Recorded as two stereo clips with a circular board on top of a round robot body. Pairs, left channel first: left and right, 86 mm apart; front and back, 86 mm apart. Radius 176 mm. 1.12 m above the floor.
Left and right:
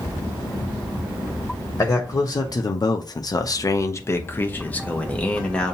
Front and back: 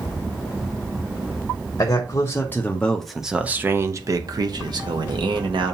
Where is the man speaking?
40° left, 1.0 m; by 5.7 s 165° left, 1.4 m.